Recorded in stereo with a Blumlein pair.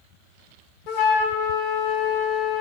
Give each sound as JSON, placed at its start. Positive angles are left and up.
{"t": 0.9, "sound": "a flute", "azimuth_deg": 45, "distance_m": 1.5}